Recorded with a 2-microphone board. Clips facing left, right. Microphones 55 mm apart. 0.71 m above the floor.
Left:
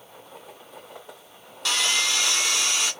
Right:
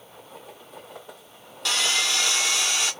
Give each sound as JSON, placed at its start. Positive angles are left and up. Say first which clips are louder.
{"t": 1.6, "sound": "sawing", "louder": "even", "side_deg": 0, "distance_m": 1.6}